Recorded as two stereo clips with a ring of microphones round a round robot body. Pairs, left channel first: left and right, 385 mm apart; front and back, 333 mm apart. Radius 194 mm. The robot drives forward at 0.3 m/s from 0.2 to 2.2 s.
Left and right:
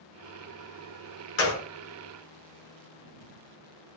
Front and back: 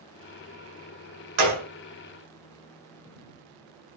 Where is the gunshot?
145° left, 0.8 m; by 1.7 s 150° left, 0.9 m.